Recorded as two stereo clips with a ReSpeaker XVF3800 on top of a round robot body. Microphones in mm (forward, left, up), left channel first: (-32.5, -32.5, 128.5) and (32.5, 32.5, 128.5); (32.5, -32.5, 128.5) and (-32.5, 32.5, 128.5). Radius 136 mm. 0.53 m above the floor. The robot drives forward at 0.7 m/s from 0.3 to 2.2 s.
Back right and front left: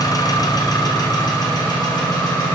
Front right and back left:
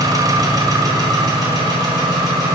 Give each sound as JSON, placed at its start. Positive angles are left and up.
{"t": 0.0, "sound": "an engine running", "azimuth_deg": 180, "distance_m": 1.2}